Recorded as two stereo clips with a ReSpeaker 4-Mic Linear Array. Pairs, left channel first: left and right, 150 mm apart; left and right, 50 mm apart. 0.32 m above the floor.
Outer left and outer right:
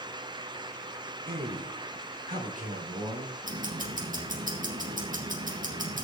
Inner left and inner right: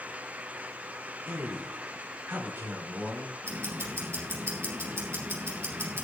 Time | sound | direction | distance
1.3 | a man speaking | 75° right (ahead or behind) | 5 m
3.4 | ticking | 65° right (ahead or behind) | 4.5 m